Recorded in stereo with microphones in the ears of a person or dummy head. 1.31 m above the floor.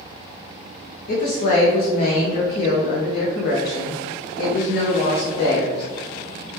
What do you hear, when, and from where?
1.1 s a woman speaking: 55° left (ahead or behind), 0.6 m